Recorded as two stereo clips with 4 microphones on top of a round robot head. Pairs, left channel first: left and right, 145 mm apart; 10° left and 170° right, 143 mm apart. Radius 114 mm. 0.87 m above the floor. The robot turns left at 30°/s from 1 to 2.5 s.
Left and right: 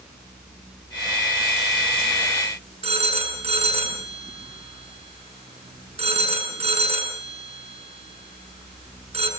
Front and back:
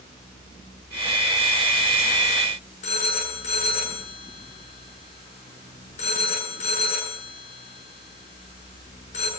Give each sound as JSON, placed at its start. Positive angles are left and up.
{"t": 2.8, "sound": "a phone ringing", "azimuth_deg": -45, "distance_m": 8.5}